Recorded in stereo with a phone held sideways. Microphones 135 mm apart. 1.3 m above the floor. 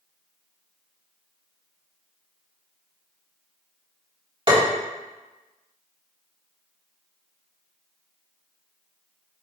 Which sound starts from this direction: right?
Tapping, at 4.5 s.